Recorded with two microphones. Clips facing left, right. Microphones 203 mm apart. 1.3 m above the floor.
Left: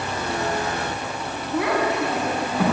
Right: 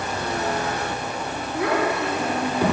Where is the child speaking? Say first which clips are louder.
Left 1 dB; 80° left, 6.5 m; by 2.6 s 85° left, 6.5 m.